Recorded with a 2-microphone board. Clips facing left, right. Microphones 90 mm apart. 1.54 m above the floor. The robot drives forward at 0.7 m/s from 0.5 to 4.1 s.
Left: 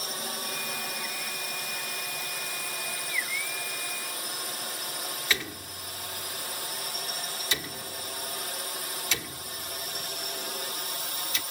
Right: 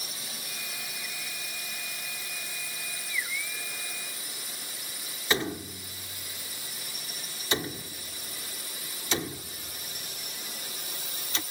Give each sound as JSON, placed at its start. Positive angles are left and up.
{"t": 0.0, "sound": "a drone", "side_deg": 55}
{"t": 5.3, "sound": "a door slam", "side_deg": -30}